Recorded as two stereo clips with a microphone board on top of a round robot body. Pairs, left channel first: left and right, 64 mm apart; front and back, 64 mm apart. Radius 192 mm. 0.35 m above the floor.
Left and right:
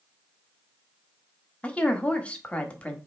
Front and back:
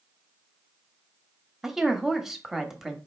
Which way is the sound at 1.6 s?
105° left.